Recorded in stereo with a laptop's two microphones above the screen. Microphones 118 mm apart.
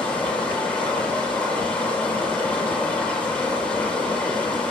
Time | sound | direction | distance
0.0 | running water | 10° left (ahead or behind) | 9.5 m